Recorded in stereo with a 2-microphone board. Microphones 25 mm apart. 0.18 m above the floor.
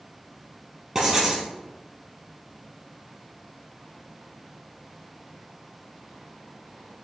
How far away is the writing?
About 1.5 m.